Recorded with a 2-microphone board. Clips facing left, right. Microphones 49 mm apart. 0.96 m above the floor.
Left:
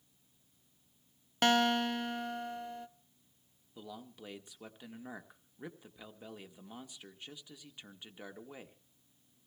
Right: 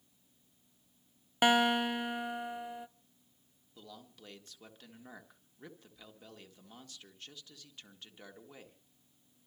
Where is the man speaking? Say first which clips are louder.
Left 5 dB; 15° left (ahead or behind), 1.8 m.